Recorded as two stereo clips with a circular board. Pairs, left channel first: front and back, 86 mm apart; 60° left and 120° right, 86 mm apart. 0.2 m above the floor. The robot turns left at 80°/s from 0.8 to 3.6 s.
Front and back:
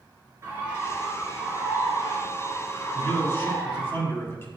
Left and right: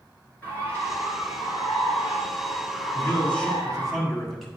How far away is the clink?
No clink in this recording.